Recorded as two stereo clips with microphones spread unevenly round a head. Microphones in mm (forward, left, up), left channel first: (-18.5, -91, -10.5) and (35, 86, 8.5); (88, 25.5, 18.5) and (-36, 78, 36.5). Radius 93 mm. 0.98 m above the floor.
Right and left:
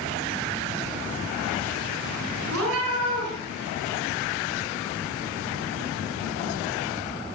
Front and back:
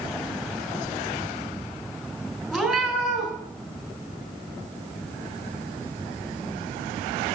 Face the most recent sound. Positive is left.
turn(degrees=65)